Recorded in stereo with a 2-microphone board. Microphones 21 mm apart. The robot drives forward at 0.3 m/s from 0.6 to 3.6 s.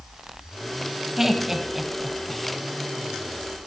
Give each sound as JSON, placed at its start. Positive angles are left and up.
{"t": 1.2, "sound": "laughter", "side_deg": -10, "distance_m": 1.3}